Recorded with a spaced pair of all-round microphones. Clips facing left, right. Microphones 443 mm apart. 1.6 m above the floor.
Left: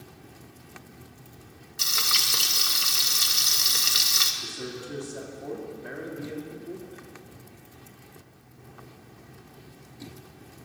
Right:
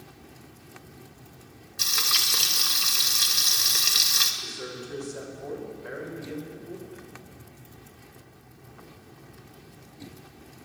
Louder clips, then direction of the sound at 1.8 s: Left 1 dB; 5° right (ahead or behind).